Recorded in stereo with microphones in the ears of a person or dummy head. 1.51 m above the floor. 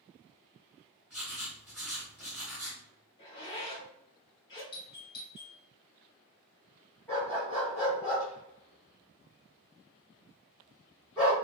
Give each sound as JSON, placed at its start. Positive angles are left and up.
{"t": 1.1, "sound": "writing", "side_deg": -10, "distance_m": 1.6}
{"t": 3.2, "sound": "a zipper", "side_deg": 20, "distance_m": 0.8}
{"t": 4.7, "sound": "a doorbell", "side_deg": 25, "distance_m": 0.6}
{"t": 7.1, "sound": "a dog barking", "side_deg": 5, "distance_m": 1.1}